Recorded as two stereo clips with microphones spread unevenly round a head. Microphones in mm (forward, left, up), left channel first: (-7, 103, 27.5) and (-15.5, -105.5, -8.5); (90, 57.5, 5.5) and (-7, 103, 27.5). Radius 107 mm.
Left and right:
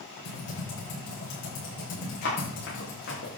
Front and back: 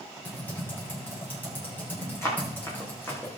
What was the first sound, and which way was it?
Typing on a keyboard, 50° left.